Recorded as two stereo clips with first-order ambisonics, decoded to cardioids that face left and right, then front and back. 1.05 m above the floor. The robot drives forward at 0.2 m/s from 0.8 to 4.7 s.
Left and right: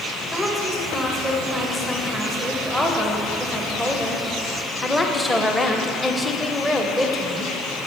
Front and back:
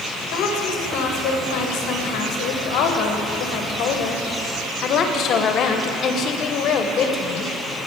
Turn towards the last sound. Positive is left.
turn(degrees=15)